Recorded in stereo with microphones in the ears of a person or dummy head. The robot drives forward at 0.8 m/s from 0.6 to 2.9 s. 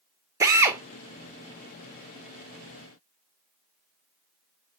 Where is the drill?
20° right (ahead or behind), 0.9 m; by 0.8 s 15° right (ahead or behind), 1.0 m.